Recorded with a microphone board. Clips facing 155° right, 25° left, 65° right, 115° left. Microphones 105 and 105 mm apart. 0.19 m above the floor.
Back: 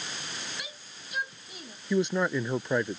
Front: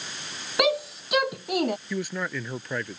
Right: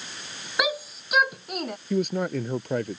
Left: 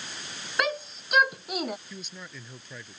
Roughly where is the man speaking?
Right.